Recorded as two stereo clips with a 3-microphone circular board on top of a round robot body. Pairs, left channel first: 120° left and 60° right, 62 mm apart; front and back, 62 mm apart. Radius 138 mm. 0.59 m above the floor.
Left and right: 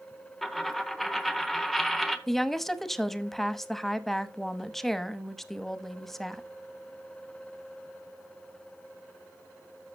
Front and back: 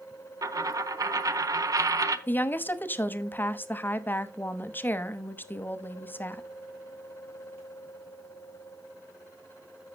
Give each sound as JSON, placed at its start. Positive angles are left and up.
{"t": 0.4, "sound": "a dropped coin", "azimuth_deg": -155, "distance_m": 1.0}
{"t": 2.3, "sound": "a woman speaking", "azimuth_deg": 35, "distance_m": 1.1}